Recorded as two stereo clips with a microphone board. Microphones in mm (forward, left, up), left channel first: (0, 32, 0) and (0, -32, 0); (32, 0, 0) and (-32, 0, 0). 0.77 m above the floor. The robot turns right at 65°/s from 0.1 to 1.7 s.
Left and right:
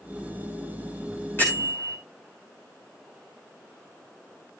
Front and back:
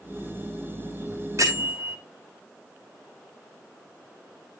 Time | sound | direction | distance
1.4 | a bell | 145° left | 6 m